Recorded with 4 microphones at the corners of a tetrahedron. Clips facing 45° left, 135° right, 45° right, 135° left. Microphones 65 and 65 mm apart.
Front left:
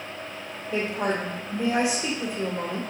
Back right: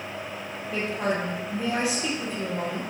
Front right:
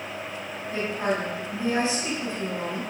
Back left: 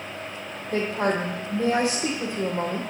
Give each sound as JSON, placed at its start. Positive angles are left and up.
{"t": 0.7, "sound": "a woman speaking", "azimuth_deg": 115, "distance_m": 3.5}